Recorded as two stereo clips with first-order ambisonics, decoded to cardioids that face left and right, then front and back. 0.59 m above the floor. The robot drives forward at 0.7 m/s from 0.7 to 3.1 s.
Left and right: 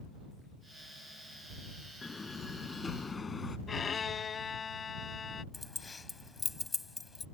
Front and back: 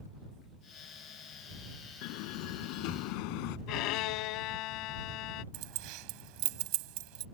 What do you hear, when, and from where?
2.0 s a door slam: 10° left; by 3.6 s 15° left
3.7 s a violin: 20° left
5.5 s keys jangling: 170° left